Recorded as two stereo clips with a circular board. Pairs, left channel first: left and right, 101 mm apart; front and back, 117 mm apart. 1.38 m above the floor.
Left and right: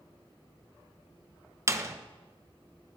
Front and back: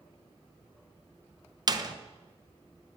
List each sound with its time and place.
1.7 s a door slam: 140° right, 0.5 m